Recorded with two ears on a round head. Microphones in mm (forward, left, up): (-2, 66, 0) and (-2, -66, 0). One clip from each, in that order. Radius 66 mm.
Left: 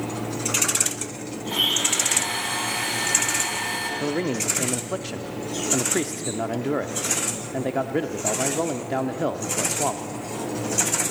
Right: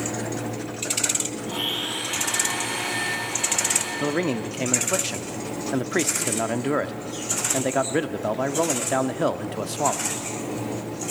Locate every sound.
1.4 s a blender: 50° left (ahead or behind), 4.5 m
4.0 s a man speaking: 25° right (ahead or behind), 0.7 m